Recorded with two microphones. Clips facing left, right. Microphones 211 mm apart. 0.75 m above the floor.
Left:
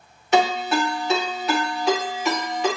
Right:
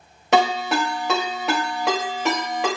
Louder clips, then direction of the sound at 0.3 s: Even; 75° right (ahead or behind).